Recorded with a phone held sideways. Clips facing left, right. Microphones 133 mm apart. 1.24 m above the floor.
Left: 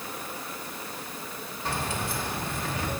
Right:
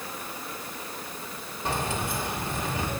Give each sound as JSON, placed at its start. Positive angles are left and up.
{"t": 1.6, "sound": "keys jangling", "side_deg": -20, "distance_m": 1.5}